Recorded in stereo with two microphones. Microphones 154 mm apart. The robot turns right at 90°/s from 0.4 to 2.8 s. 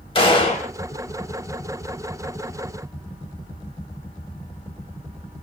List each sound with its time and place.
0.1 s a gunshot: 35° left (ahead or behind), 0.5 m; by 0.7 s 60° left (ahead or behind), 0.5 m